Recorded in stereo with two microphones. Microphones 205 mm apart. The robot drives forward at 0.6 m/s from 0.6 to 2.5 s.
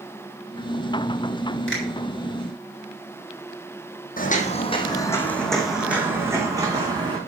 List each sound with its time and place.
1.7 s a finger snap: 70° left (ahead or behind), 4 m
4.2 s footsteps: 40° left (ahead or behind), 1.6 m; by 7.2 s 20° right (ahead or behind), 3 m